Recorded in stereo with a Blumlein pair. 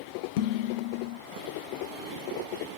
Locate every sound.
0.4 s dishes clattering: 50° left, 0.7 m